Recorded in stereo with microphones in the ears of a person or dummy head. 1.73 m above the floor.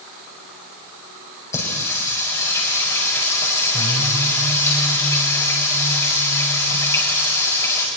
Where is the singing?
20° left (ahead or behind), 5 m.